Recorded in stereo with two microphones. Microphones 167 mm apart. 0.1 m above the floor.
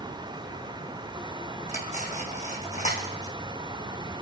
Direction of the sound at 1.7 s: 45° left (ahead or behind).